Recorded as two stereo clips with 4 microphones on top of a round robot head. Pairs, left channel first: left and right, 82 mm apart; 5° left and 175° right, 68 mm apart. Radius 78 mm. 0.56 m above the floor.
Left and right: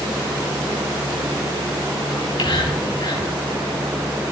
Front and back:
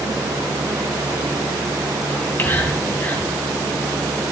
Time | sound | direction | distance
2.1 | whispering | 65° left | 6 m